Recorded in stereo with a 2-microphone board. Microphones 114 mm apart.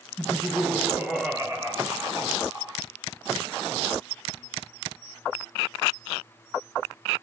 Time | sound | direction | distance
0.2 | laughter | 5° right (ahead or behind) | 2.5 m